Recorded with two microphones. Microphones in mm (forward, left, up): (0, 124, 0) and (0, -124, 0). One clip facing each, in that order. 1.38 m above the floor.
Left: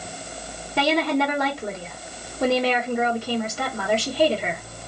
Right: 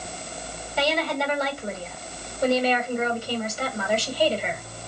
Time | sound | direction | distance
0.8 | a woman speaking | 70° left (ahead or behind) | 1.4 m